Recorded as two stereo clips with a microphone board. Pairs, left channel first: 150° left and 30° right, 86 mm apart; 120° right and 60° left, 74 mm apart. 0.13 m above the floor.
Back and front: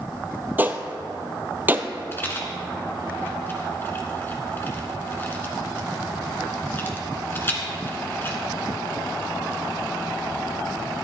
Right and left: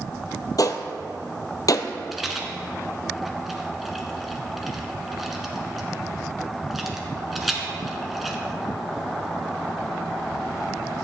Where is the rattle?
145° left, 1.6 m.